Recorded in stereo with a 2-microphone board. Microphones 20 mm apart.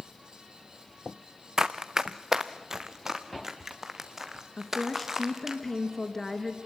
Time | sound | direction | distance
1.6 | running footsteps | 30° right (ahead or behind) | 1.1 m
4.6 | a woman speaking | 15° left (ahead or behind) | 3 m